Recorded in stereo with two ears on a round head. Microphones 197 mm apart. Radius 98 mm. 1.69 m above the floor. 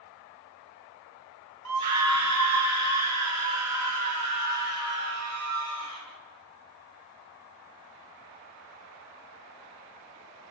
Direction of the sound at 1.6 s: 85° right.